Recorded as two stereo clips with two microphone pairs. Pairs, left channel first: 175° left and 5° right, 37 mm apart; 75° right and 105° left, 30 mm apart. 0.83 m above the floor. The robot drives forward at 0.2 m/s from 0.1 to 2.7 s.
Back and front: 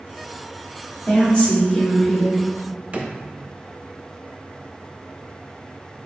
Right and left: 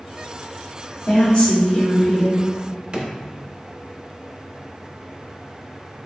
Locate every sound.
1.1 s a woman speaking: 125° right, 1.4 m; by 2.4 s 130° right, 1.5 m
2.9 s a drawer: 50° left, 0.6 m